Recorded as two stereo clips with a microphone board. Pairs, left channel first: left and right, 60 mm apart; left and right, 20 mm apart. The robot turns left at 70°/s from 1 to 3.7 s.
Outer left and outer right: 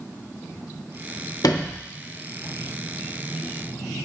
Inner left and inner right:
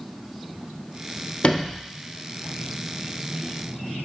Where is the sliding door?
70° left (ahead or behind), 0.5 m; by 1.8 s 45° left (ahead or behind), 0.5 m.